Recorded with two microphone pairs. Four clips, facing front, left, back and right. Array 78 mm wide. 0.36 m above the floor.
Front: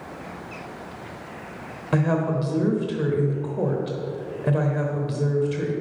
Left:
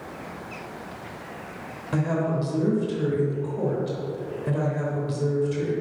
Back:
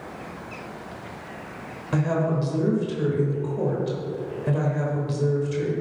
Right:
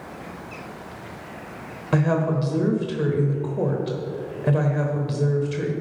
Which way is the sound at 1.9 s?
60° right.